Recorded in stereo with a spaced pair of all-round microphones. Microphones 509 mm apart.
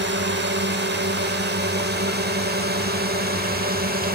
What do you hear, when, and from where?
0.0 s a drone: 20° right (ahead or behind); by 4.2 s 15° right (ahead or behind)